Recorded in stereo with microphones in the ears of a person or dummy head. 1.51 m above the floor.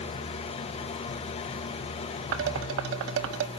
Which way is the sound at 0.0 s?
35° left (ahead or behind).